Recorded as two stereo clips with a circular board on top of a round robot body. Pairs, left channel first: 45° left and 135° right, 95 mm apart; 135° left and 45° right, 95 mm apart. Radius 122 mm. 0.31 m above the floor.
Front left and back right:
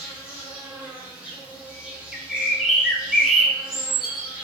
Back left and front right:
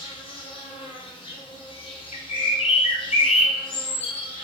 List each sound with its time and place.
0.0 s an insect: 150° left, 0.9 m
2.1 s a bird: 135° left, 0.5 m